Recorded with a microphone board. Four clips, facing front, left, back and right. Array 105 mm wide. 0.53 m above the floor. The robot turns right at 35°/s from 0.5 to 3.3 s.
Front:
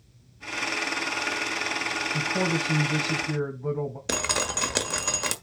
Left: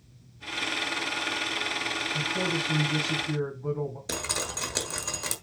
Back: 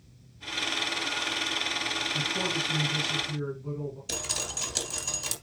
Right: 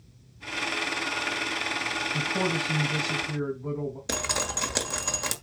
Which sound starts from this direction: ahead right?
A man speaking, at 2.1 s.